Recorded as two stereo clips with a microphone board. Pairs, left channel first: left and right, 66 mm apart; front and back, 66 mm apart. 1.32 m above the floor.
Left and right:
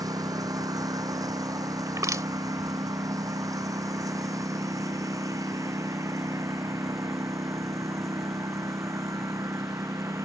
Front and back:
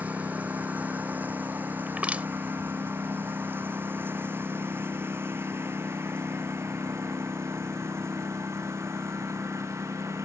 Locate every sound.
0.0 s a lawn mower: 110° right; by 10.3 s 130° right
1.9 s crushing: 110° right